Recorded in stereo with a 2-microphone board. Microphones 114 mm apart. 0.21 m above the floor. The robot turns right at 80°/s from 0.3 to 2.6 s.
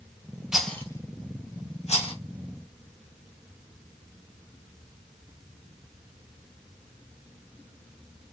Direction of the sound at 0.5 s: 5° right (ahead or behind).